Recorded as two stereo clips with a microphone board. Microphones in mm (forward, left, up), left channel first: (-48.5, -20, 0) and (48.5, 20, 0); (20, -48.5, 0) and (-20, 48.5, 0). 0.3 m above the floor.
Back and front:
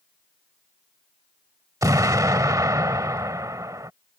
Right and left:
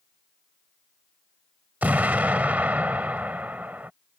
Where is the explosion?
50° left.